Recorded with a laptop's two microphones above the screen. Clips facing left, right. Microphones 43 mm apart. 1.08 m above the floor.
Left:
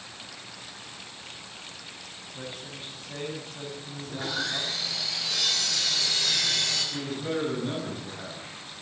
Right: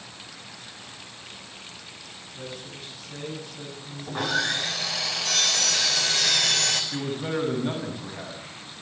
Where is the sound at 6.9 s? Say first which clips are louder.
Right 2 dB; 35° right (ahead or behind), 8.5 m.